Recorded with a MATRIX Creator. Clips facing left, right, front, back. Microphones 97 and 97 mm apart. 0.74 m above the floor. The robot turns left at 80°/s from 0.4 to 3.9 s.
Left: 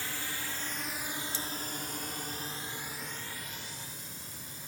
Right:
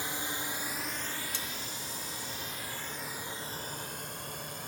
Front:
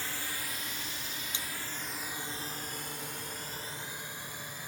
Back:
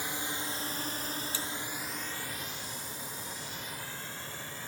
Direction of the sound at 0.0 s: 130° right.